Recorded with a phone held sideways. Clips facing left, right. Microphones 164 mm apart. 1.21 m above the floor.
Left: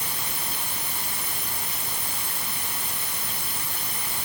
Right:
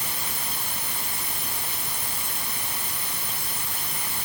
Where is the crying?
I don't hear crying.